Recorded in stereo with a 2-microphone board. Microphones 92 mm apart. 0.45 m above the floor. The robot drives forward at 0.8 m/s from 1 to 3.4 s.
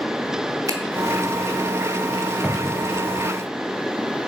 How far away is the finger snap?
About 0.9 m.